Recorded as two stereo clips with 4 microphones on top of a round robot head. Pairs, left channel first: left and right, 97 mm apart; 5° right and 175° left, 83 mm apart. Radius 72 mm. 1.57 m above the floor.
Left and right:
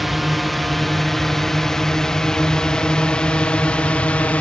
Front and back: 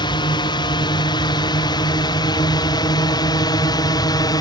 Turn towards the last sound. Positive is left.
turn(degrees=15)